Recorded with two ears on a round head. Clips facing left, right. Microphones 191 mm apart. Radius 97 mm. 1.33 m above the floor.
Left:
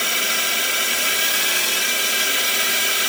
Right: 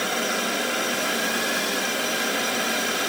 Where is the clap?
I don't hear a clap.